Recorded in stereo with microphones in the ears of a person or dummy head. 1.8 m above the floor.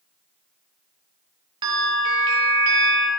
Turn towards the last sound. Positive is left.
turn(degrees=-25)  # may be behind; listen again after turning